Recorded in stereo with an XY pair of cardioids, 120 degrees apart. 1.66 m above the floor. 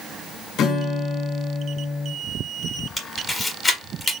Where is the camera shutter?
25° left, 1.8 m.